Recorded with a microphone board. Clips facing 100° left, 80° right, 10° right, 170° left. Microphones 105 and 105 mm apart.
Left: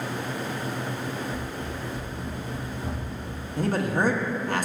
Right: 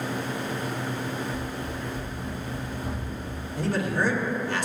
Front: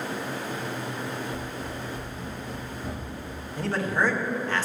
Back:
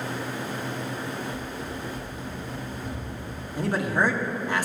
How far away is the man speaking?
About 1.1 m.